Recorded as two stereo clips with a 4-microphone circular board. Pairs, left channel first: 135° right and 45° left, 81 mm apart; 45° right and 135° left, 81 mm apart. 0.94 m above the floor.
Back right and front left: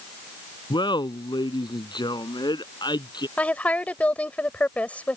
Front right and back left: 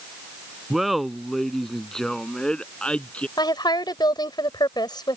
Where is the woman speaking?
65° right.